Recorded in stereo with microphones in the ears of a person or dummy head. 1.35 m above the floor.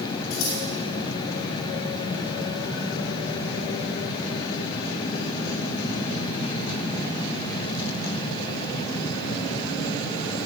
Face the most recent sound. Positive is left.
turn(degrees=85)